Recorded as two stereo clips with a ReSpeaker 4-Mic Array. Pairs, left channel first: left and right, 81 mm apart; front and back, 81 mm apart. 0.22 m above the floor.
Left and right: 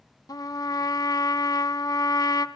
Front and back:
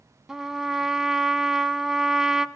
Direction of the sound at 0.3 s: 95° left.